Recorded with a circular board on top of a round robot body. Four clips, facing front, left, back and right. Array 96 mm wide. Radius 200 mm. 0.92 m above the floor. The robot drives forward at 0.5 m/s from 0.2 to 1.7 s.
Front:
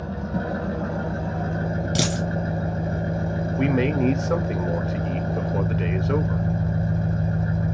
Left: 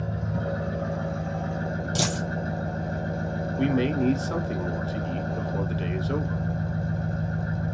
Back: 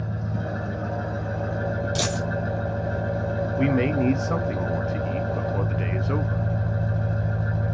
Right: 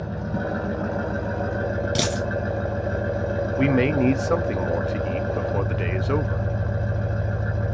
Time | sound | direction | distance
0.0 | an engine running | 60° right | 1.0 m
1.9 | a dropped coin | 55° right | 1.3 m
3.6 | a man speaking | 90° right | 0.8 m